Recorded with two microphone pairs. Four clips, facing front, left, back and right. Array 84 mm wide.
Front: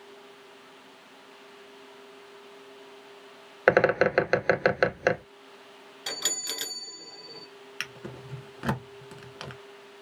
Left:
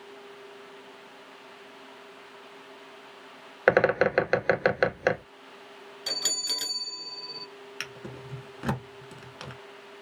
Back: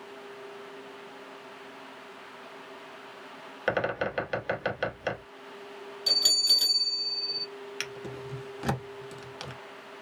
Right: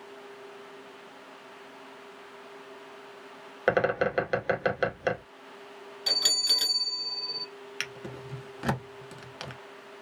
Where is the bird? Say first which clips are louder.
Left 4 dB, front 8 dB; 35° left, 0.5 m.